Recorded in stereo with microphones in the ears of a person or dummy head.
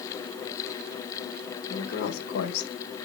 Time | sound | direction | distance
1.7 | a woman speaking | 40° left (ahead or behind) | 1.2 m